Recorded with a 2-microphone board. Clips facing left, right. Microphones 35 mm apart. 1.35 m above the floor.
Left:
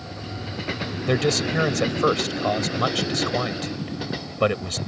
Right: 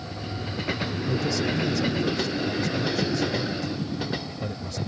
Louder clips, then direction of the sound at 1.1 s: Left 5 dB; 85° left.